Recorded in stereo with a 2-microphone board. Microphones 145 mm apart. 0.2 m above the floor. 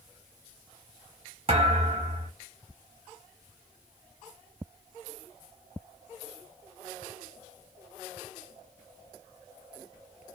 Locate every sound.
1.5 s a thud: 40° right (ahead or behind), 1.4 m